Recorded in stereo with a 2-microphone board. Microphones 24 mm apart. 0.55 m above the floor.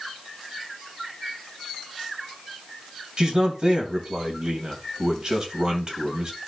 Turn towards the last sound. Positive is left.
turn(degrees=-40)  # may be behind; listen again after turning